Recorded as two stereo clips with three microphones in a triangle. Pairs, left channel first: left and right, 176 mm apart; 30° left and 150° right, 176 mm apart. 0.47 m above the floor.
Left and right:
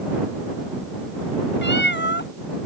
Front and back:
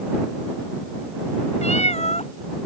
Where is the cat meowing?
80° left.